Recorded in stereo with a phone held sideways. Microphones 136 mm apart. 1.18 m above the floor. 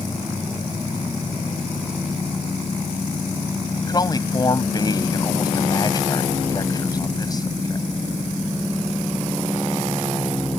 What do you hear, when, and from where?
3.9 s a man speaking: 30° left (ahead or behind)